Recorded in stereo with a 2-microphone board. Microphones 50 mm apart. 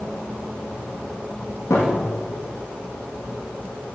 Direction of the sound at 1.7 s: 70° left (ahead or behind).